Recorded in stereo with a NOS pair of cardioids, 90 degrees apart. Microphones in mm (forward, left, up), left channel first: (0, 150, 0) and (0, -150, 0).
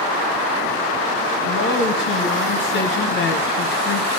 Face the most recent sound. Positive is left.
turn(degrees=40)